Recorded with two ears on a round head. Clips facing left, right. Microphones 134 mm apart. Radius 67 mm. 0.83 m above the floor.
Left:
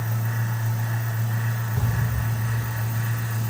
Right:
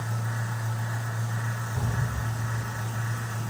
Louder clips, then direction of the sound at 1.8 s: Left 3 dB; 10° right (ahead or behind).